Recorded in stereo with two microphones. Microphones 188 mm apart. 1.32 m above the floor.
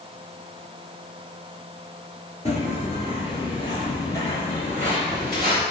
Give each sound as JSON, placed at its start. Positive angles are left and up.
{"t": 2.5, "sound": "footsteps", "side_deg": 40, "distance_m": 1.6}